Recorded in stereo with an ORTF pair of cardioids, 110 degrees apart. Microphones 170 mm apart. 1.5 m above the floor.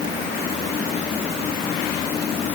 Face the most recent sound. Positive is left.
No sound to turn to.